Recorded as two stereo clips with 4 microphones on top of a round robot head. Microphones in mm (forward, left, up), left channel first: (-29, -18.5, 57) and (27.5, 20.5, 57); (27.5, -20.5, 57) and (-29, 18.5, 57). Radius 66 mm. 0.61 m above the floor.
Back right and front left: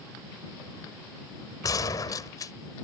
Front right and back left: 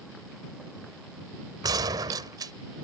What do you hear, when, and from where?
1.6 s a gunshot: 175° left